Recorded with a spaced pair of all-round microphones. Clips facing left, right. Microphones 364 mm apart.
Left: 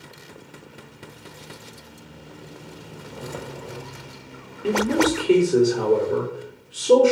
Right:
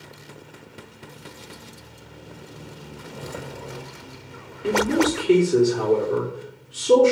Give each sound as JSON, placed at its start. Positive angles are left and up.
{"t": 3.1, "sound": "footsteps", "side_deg": 10, "distance_m": 2.0}
{"t": 4.6, "sound": "a man speaking", "side_deg": -10, "distance_m": 3.5}